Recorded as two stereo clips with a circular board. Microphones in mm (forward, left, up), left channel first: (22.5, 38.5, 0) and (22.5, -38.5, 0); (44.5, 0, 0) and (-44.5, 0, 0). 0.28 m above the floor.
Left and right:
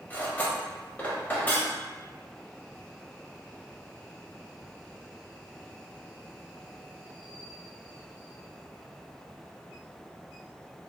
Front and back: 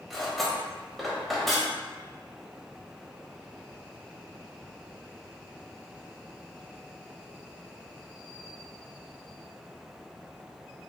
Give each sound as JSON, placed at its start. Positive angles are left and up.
{"t": 0.1, "sound": "cutlery clinking", "azimuth_deg": 90, "distance_m": 0.6}